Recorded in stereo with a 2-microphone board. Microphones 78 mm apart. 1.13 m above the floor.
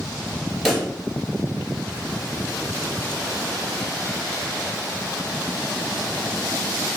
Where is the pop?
Centre (ahead or behind), 1.0 m.